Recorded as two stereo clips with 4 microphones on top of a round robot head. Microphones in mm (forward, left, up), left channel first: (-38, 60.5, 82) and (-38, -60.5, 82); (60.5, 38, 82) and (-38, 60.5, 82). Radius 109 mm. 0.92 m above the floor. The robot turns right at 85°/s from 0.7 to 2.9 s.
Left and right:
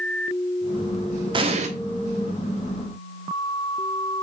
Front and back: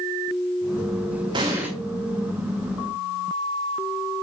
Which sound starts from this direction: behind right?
An explosion, at 1.3 s.